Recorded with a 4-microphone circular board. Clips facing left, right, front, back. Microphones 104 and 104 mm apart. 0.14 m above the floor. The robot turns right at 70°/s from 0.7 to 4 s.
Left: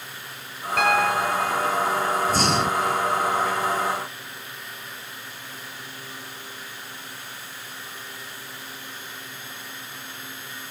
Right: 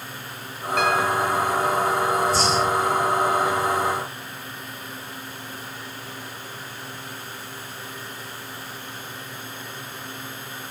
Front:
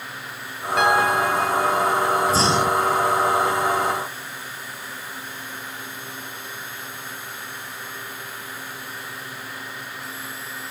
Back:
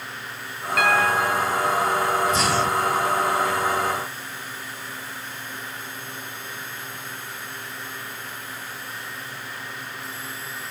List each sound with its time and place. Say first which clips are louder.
0.8 s a piano: even, front 2 dB; 60° left, 0.8 m; by 2.2 s 160° left, 0.8 m
2.3 s breathing: right 1 dB, front 2 dB; 50° left, 0.7 m; by 3.0 s 100° left, 0.7 m